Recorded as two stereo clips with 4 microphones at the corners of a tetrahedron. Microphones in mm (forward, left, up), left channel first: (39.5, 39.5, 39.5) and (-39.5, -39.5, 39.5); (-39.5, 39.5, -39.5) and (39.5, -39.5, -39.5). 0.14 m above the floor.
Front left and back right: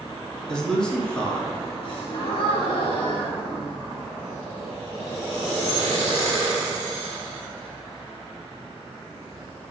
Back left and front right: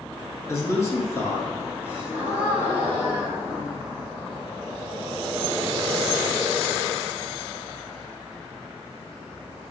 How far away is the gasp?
About 1.3 m.